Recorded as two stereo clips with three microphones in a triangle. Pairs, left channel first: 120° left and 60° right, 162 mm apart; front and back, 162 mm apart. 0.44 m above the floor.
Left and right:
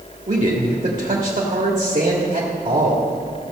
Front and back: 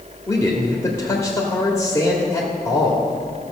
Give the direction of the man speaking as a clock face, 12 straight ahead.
2 o'clock.